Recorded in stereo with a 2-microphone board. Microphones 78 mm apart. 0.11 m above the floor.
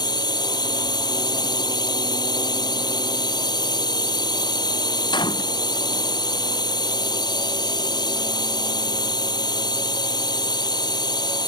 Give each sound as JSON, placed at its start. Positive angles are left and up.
{"t": 0.0, "sound": "a drone", "side_deg": 65}
{"t": 5.1, "sound": "a gunshot", "side_deg": 80}